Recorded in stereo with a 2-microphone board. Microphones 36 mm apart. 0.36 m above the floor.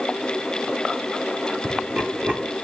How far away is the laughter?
About 1.8 m.